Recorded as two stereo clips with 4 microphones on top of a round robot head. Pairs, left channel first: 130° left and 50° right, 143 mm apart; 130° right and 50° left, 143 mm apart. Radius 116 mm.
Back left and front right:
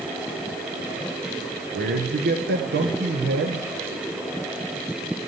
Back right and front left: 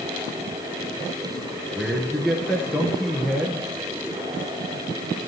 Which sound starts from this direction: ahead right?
A man speaking, at 1.7 s.